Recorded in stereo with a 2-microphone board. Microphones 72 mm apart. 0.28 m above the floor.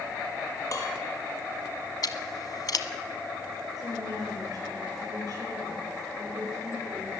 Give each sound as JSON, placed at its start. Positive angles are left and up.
{"t": 0.7, "sound": "dishes clattering", "side_deg": 50, "distance_m": 5.0}
{"t": 2.0, "sound": "scissors", "side_deg": 60, "distance_m": 1.4}
{"t": 3.8, "sound": "a woman speaking", "side_deg": -55, "distance_m": 8.5}